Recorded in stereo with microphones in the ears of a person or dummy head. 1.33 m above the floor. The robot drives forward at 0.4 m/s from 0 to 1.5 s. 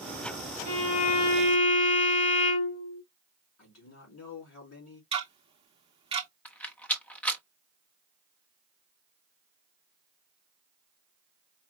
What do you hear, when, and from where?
0.7 s a violin: 45° left (ahead or behind), 2.5 m; by 3.0 s 40° left (ahead or behind), 2.5 m
3.6 s a man speaking: 70° left (ahead or behind), 3 m
5.1 s ticking: 35° right (ahead or behind), 0.8 m
6.5 s a rattle: 5° left (ahead or behind), 1.0 m